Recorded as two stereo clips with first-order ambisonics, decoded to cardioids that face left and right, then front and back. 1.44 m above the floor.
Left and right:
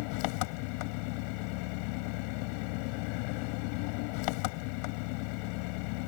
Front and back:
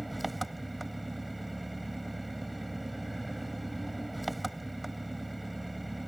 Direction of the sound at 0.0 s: 90° left.